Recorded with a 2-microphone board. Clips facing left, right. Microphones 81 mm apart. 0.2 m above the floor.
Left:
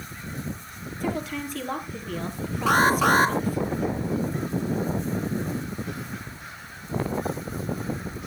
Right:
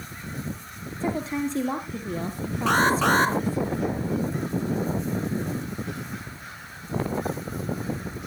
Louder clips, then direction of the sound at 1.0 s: Right 3 dB; 25° right (ahead or behind).